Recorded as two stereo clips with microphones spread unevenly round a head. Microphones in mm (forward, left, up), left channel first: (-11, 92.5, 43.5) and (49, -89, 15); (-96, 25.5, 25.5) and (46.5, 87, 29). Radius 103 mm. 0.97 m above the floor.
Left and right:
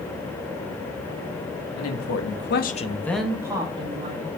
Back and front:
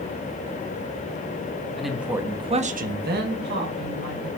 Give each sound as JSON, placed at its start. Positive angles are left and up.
{"t": 1.8, "sound": "a man speaking", "azimuth_deg": 115, "distance_m": 1.7}